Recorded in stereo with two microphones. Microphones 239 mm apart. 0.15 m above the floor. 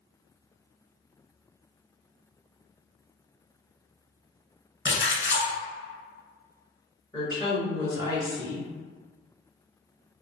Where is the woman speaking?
15° left (ahead or behind), 1.7 m.